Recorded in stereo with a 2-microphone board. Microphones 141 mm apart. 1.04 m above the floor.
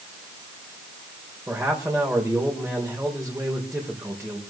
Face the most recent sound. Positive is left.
turn(degrees=-10)  # may be behind; listen again after turning